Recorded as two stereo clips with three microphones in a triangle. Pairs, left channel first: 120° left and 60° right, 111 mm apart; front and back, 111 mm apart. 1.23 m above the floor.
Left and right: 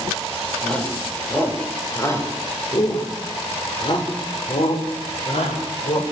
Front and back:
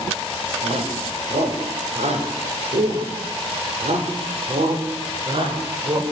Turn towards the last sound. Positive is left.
turn(degrees=135)